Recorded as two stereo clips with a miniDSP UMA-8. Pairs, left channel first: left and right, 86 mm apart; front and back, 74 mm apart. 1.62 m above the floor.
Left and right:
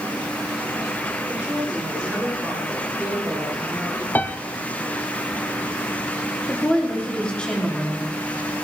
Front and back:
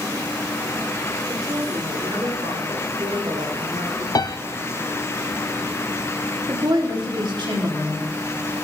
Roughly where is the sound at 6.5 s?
Behind.